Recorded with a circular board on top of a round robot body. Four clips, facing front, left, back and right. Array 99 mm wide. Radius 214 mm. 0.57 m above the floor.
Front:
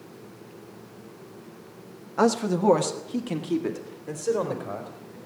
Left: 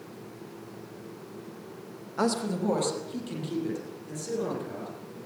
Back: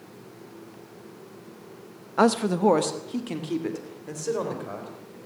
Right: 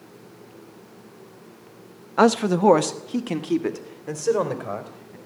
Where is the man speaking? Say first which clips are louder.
Right 10 dB, back 1 dB; 110° right, 1.1 m; by 5.2 s 85° right, 4.5 m.